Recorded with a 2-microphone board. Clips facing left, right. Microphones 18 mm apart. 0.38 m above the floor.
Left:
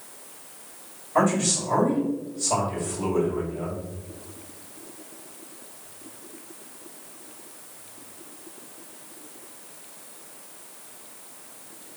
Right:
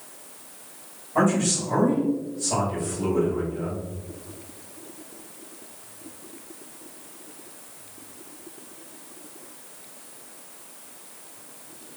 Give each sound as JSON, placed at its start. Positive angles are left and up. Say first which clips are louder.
{"t": 1.1, "sound": "a man speaking", "louder": "even", "side_deg": 40, "distance_m": 1.9}